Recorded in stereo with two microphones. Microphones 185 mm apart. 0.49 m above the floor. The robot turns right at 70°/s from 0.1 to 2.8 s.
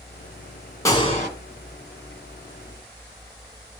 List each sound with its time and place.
0.8 s a gunshot: 15° left, 1.8 m; by 1.3 s 50° left, 1.8 m